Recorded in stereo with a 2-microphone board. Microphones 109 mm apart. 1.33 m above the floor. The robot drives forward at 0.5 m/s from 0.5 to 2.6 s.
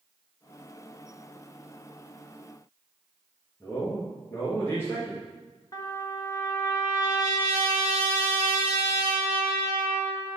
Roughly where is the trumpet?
Left.